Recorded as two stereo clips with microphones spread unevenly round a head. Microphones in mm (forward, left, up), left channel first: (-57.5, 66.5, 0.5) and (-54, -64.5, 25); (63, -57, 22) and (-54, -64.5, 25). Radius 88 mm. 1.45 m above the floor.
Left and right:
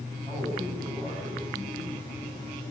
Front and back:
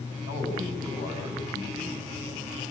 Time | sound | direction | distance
0.3 | a man speaking | 5° left | 9 m